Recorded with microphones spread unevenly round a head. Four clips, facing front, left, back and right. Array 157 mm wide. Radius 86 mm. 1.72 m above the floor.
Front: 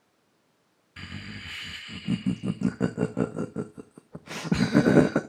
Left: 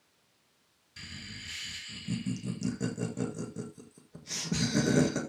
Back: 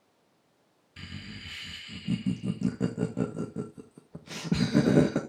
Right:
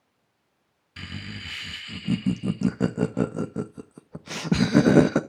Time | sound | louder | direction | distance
1.0 | laughter | right 9 dB, front 3 dB | 55° right | 0.7 m